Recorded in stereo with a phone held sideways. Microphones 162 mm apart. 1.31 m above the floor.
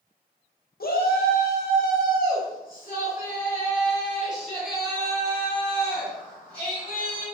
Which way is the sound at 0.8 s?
65° left (ahead or behind).